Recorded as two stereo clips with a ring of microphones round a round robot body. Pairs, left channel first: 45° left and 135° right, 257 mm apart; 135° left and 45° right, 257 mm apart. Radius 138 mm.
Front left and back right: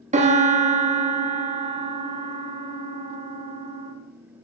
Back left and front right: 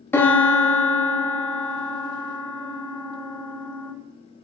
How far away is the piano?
About 1.0 m.